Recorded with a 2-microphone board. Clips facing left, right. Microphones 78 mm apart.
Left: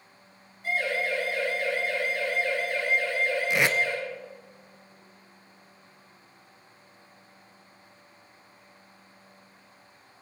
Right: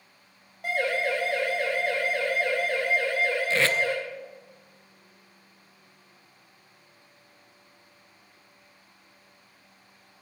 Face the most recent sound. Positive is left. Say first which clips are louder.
# even
turn(degrees=15)  # may be behind; listen again after turning